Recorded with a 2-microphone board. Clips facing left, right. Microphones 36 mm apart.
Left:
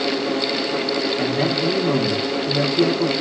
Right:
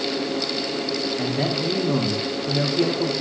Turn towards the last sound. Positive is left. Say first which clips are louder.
# left 4 dB
turn(degrees=0)  # may be behind; listen again after turning